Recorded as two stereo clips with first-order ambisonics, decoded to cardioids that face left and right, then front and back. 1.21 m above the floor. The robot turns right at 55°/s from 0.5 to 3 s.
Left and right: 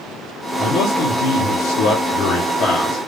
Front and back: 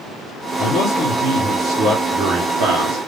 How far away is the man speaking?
About 1.2 m.